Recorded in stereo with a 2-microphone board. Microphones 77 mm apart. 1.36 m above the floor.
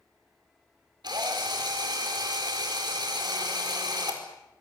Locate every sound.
1.0 s a drill: 70° right (ahead or behind), 5 m